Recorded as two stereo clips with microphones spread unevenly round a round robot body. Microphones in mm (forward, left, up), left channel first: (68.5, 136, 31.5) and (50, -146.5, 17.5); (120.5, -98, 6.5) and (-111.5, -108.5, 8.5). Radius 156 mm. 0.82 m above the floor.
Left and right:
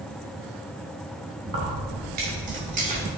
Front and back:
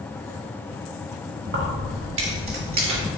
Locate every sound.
1.4 s keys jangling: 150° right, 3 m; by 3.1 s 160° right, 1.8 m